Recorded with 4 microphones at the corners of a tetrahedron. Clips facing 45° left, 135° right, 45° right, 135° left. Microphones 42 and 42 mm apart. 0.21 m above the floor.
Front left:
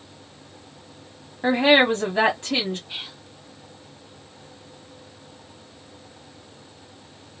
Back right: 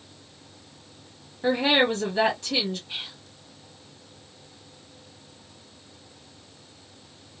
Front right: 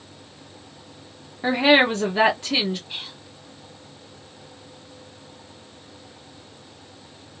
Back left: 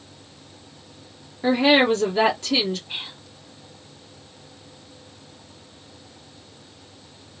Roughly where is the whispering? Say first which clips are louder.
Front left 1 dB, back left 2 dB; behind left.